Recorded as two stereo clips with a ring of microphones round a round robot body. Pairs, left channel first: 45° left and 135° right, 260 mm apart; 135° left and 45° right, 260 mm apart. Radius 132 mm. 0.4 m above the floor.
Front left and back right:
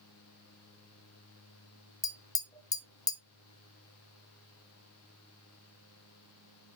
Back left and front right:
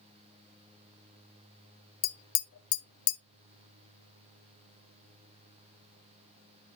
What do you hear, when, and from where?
2.0 s tapping: 120° left, 0.7 m